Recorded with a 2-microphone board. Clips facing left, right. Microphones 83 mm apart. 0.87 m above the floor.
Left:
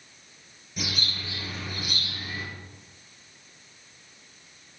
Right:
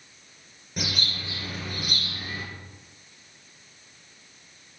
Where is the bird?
55° right (ahead or behind), 7.5 m.